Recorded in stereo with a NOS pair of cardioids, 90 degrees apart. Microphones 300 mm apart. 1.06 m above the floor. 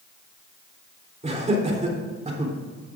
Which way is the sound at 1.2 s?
20° right.